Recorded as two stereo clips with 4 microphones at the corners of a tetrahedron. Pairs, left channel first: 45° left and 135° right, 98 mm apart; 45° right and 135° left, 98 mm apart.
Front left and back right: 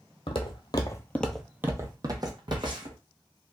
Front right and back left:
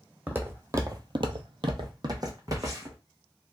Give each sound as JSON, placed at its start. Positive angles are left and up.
{"t": 0.3, "sound": "footsteps", "azimuth_deg": 65, "distance_m": 0.9}